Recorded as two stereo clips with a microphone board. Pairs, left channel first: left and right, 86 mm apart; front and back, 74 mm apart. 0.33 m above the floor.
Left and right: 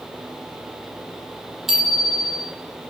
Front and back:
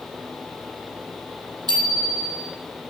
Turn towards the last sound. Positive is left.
turn(degrees=-175)